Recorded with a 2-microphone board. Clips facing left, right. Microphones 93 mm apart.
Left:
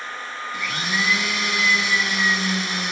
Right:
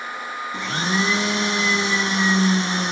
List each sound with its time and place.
0.5 s a blender: 30° right (ahead or behind), 0.8 m